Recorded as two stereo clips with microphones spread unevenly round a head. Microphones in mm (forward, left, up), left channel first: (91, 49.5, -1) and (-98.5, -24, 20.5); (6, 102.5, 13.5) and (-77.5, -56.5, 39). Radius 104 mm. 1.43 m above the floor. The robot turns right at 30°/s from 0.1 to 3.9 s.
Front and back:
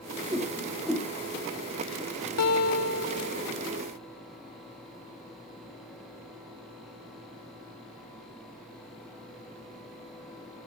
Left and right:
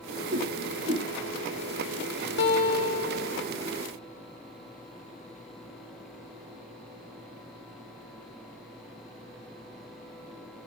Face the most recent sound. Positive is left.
turn(degrees=70)